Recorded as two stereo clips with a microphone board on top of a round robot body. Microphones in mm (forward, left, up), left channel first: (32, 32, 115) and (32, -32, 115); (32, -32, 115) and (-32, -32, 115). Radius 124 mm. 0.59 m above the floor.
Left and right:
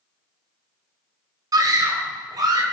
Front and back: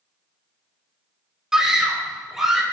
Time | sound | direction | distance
1.5 | a scream | 100° right | 2.5 m